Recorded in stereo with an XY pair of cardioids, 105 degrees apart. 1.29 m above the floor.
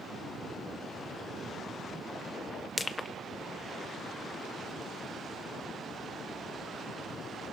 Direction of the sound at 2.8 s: 25° left.